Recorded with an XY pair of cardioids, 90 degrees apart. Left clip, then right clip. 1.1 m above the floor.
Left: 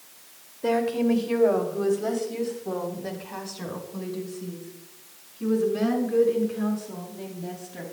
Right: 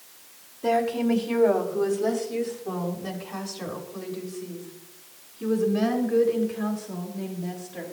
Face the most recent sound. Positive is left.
turn(degrees=10)